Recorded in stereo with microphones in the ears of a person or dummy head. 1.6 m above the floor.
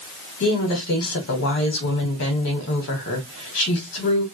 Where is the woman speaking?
60° left (ahead or behind), 1.8 m.